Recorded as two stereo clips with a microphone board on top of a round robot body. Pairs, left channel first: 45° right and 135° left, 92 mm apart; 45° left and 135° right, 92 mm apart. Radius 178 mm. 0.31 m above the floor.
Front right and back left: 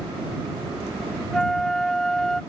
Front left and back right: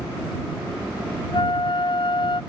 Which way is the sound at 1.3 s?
40° left.